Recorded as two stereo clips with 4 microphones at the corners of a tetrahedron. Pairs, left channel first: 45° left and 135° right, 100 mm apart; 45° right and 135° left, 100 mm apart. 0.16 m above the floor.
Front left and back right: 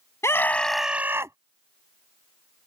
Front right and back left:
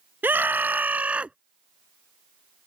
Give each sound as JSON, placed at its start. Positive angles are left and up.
{"t": 0.2, "sound": "a scream", "azimuth_deg": 80}